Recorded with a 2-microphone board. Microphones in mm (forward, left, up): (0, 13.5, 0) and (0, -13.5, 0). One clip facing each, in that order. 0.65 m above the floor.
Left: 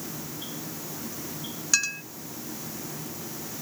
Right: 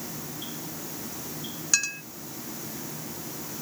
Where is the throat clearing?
No throat clearing in this recording.